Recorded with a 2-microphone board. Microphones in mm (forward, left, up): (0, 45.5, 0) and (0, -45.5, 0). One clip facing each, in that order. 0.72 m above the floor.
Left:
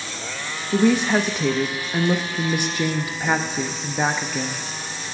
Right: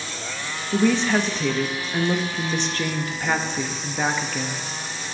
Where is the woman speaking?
10° left (ahead or behind), 0.6 m.